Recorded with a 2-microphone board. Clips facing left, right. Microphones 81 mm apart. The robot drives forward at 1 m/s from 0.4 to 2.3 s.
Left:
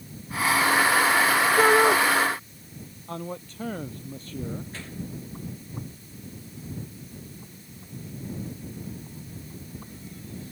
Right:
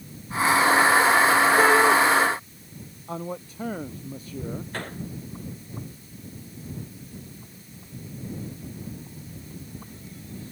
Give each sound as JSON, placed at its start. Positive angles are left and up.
{"t": 1.6, "sound": "a shout", "side_deg": 10}
{"t": 3.1, "sound": "a man speaking", "side_deg": -10}
{"t": 4.7, "sound": "a gunshot", "side_deg": -55}